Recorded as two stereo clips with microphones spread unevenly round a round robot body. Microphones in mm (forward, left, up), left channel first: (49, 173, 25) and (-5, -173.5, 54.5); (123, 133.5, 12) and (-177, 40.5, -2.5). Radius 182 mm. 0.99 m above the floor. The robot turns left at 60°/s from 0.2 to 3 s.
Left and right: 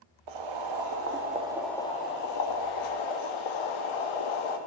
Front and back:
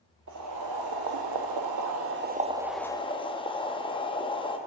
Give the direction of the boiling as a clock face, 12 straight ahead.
3 o'clock.